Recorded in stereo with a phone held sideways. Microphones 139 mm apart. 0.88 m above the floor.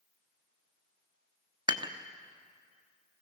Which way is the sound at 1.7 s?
35° right (ahead or behind).